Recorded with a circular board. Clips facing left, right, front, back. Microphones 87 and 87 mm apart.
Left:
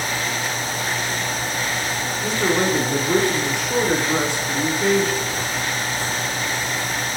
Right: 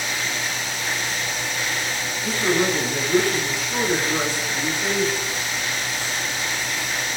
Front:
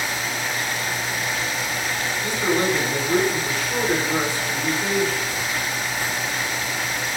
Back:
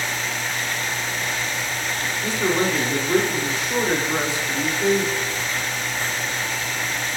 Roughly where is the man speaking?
Left.